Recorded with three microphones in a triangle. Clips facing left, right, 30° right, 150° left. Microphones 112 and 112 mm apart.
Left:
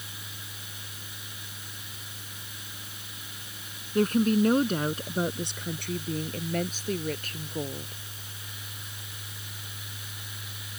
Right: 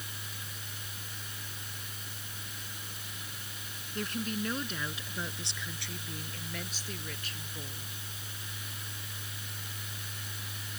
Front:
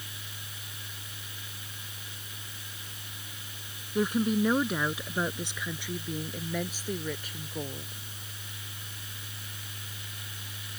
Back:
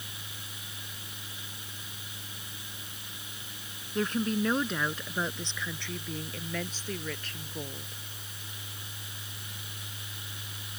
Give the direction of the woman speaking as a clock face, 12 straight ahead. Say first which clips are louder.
Left 13 dB, front 3 dB; 10 o'clock.